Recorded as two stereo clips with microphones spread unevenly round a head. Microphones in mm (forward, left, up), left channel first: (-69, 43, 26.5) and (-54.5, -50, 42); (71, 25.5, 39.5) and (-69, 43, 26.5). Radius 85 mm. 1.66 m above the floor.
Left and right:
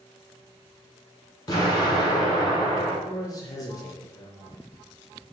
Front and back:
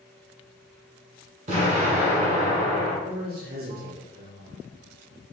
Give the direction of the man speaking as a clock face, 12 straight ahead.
7 o'clock.